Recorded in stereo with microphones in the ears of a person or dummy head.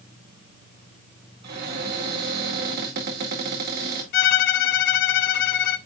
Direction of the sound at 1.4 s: 60° right (ahead or behind).